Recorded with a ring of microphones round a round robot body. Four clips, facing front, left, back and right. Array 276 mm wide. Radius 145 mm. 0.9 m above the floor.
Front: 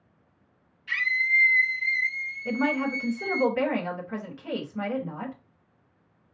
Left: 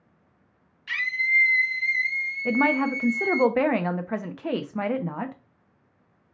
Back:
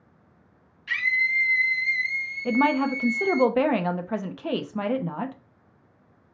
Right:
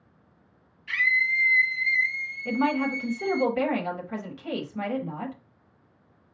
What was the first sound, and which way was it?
A scream, 120° left.